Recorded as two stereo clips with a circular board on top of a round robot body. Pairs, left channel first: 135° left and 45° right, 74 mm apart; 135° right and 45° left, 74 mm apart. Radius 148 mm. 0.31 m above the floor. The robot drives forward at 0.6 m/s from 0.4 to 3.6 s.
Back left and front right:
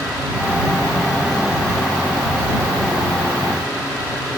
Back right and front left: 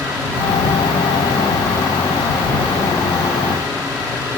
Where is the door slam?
I don't hear a door slam.